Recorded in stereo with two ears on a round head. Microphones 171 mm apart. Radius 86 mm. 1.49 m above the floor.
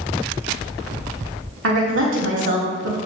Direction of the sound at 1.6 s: 75° right (ahead or behind).